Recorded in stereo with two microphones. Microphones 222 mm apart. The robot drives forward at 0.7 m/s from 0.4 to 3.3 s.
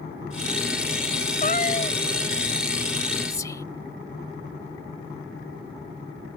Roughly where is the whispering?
Centre.